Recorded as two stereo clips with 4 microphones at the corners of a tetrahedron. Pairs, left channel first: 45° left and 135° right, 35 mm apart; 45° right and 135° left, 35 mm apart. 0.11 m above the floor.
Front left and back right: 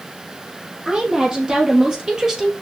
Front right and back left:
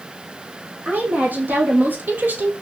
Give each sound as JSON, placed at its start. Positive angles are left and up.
{"t": 0.8, "sound": "a woman speaking", "azimuth_deg": 160, "distance_m": 4.5}